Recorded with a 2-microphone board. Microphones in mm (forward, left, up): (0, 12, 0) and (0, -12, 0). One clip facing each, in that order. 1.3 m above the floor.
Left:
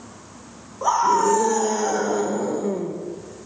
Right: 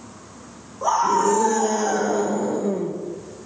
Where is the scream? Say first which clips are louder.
Left 1 dB; 20° left (ahead or behind), 5.5 m.